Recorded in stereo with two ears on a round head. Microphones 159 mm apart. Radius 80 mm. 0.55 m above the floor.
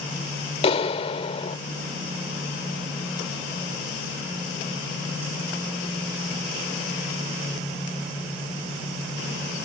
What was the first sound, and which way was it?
A clap, 35° left (ahead or behind).